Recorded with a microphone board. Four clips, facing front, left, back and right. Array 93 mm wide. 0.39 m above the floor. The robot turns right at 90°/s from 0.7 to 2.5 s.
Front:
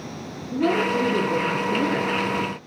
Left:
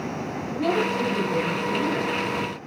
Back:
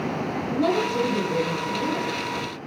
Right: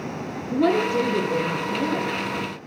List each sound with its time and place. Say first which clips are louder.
0.5 s a woman speaking: right 4 dB, front 2 dB; 90° right, 7 m; by 2.2 s 45° left, 7 m